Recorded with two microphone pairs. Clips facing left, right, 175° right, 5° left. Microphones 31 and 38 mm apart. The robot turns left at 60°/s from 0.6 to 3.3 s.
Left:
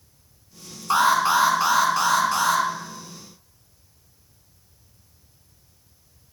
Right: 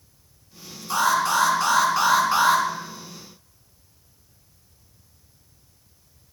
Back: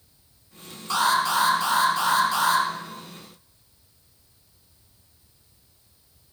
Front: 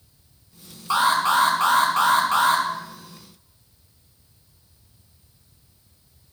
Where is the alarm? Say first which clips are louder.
Left 2 dB, front 3 dB; 70° left, 1.7 m; by 2.6 s 35° right, 1.7 m.